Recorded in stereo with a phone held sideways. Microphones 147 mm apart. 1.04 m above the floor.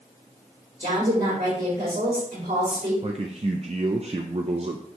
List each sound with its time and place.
0.8 s a woman speaking: 70° right (ahead or behind), 3 m
3.0 s a man speaking: 45° right (ahead or behind), 0.5 m